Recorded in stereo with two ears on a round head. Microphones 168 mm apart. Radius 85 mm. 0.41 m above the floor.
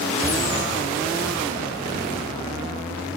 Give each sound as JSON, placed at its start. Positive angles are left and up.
{"t": 0.2, "sound": "a cupboard door", "side_deg": -15, "distance_m": 1.9}